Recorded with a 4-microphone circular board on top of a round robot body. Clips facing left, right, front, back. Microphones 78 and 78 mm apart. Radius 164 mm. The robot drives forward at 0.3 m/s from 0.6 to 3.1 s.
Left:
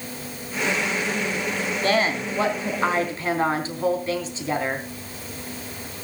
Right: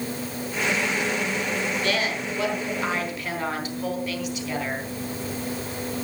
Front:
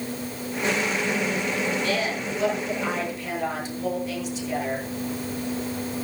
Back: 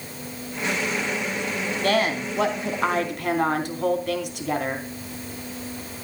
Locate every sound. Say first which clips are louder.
1.8 s a woman speaking: left 4 dB, back 4 dB; 145° left, 3.5 m